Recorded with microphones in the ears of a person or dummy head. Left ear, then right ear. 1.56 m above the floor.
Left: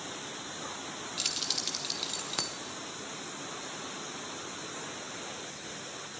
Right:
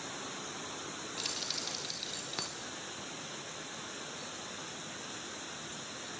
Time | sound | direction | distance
1.2 | keys jangling | 15° left (ahead or behind) | 0.9 m